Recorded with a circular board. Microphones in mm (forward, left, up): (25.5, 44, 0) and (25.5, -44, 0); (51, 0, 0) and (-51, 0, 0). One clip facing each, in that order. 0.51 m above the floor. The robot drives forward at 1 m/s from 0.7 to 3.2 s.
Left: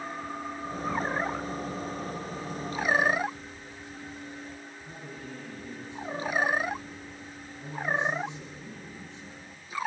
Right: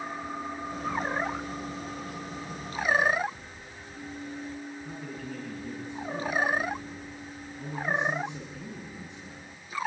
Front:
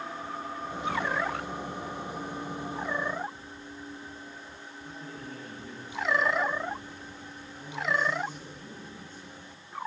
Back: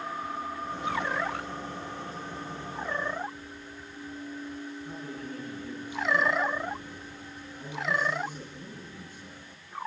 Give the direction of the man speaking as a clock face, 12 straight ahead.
3 o'clock.